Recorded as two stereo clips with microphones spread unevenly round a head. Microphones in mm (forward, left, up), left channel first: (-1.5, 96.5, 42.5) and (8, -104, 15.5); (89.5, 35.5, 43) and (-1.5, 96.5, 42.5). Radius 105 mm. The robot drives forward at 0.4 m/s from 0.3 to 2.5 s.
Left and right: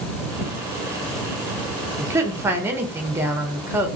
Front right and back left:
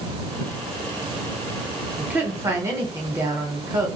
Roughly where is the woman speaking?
Behind right.